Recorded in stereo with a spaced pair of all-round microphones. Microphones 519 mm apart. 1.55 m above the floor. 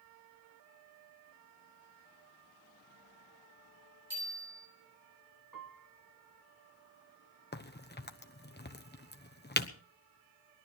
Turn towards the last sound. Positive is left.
turn(degrees=20)  # may be behind; listen again after turning